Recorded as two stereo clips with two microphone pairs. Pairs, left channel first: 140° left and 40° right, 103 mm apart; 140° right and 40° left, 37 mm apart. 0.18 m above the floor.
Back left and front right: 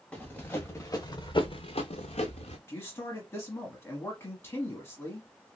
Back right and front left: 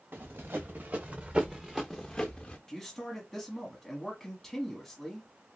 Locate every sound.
0.1 s running footsteps: 60° left, 1.5 m; by 2.6 s 160° left, 1.1 m
2.7 s a man speaking: 150° left, 1.1 m